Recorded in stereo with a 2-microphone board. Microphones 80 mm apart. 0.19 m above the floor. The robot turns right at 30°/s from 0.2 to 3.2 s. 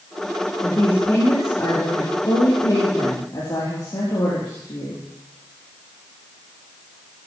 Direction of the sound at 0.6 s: 20° left.